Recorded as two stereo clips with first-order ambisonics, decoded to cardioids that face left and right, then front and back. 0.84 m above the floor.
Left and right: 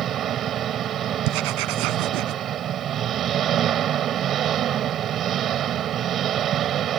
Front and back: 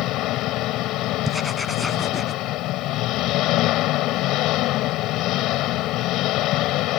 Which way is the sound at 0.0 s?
40° right.